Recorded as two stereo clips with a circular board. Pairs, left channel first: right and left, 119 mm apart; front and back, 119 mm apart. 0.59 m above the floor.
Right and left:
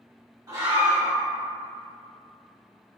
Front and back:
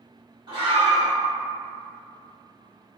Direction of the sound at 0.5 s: 140° left.